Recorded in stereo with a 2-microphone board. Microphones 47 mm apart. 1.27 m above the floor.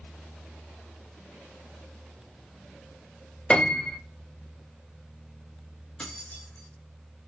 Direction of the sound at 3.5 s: 20° left (ahead or behind).